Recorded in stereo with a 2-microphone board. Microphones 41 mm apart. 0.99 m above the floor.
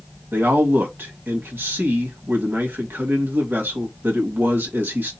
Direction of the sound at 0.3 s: 65° right (ahead or behind).